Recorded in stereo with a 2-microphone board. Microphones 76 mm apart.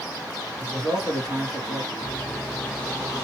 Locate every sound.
0.6 s a man speaking: 60° right (ahead or behind), 2.5 m; by 1.9 s 55° right (ahead or behind), 2.5 m
2.0 s a microwave: 5° left (ahead or behind), 1.1 m